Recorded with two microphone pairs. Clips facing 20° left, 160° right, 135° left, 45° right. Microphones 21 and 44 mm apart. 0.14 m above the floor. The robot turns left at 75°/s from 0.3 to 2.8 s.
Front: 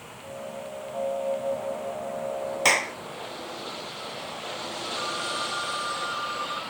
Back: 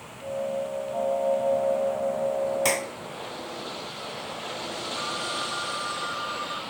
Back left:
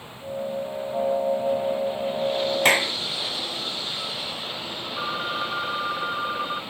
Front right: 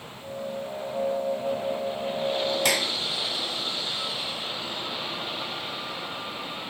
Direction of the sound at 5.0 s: 105° left.